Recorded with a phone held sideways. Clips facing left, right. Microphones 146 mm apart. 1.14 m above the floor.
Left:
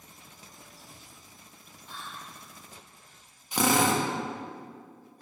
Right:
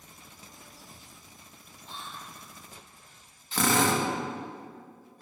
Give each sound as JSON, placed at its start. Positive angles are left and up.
{"t": 1.9, "sound": "whispering", "side_deg": -25, "distance_m": 1.1}
{"t": 3.5, "sound": "a drill", "side_deg": 15, "distance_m": 0.8}